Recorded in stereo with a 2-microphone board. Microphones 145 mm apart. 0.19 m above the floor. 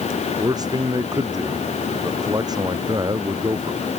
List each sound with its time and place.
0.4 s a man speaking: 25° right (ahead or behind)